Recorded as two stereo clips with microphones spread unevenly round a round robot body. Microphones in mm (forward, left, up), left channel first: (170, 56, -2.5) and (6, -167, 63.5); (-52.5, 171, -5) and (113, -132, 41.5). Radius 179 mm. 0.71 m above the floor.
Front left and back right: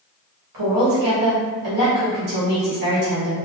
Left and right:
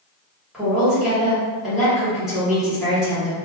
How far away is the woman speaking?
About 1.2 m.